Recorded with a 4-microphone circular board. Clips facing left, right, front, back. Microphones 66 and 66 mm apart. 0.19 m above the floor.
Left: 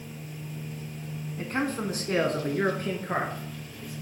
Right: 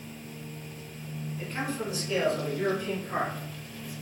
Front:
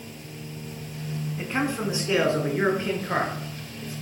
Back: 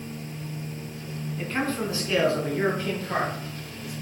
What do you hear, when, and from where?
1.4 s a man speaking: 70° left, 1.9 m; by 3.9 s 60° left, 4 m